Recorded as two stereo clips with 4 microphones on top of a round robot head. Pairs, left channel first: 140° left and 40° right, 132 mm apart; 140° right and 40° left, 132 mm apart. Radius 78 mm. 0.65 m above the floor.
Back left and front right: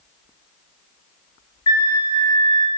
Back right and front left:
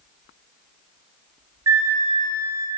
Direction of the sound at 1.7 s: 100° left.